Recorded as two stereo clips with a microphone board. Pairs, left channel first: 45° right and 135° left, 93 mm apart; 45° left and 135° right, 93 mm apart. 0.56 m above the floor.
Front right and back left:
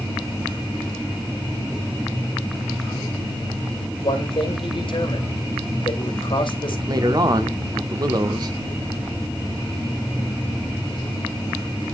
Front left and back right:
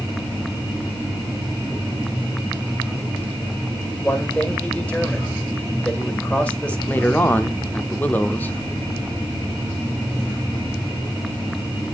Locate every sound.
4.0 s a man speaking: 30° right, 2.5 m
6.9 s a man speaking: 110° left, 0.9 m